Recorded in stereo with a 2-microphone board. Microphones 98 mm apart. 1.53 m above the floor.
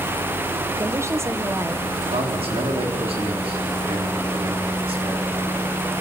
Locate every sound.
0.7 s a woman speaking: 30° right (ahead or behind), 1.3 m
2.0 s a man speaking: 85° right, 4 m